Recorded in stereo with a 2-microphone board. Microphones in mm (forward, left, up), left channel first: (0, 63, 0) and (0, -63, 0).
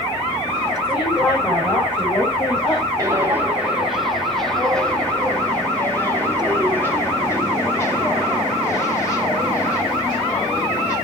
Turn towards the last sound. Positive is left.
turn(degrees=25)  # may be behind; listen again after turning